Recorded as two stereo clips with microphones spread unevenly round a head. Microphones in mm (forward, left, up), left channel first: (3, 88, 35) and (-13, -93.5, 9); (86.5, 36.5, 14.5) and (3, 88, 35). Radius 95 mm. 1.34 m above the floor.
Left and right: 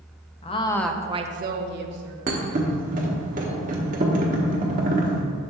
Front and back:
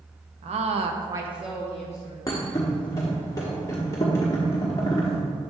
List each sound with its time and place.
0.4 s a woman speaking: 145° left, 0.7 m; by 2.2 s 95° right, 1.2 m
2.3 s a thud: 90° right, 0.9 m